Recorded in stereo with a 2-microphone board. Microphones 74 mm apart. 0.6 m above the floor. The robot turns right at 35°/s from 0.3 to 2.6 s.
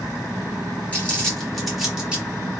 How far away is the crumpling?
About 1.4 m.